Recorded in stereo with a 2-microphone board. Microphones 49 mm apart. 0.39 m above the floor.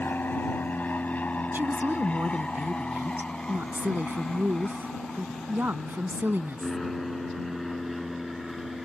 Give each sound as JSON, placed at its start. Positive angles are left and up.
{"t": 0.0, "sound": "an aircraft", "side_deg": 45}
{"t": 1.5, "sound": "a woman speaking", "side_deg": -45}